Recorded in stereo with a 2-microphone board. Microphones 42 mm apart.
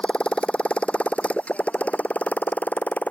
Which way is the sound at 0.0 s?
25° left (ahead or behind).